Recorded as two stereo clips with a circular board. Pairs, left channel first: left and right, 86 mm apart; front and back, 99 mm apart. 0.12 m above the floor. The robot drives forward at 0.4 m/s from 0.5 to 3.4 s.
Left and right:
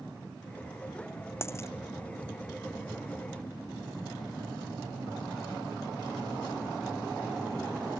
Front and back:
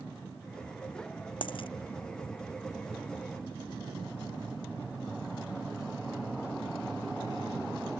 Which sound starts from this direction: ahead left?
A dropped coin, at 1.4 s.